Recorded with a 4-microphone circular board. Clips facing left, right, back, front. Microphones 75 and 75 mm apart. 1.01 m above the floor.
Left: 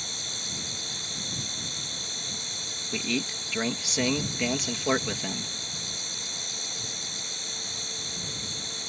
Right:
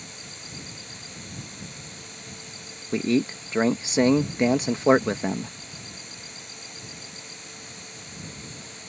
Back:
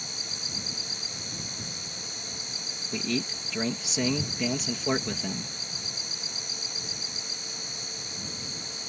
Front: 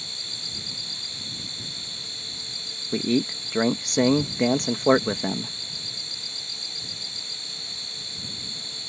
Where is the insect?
105° left.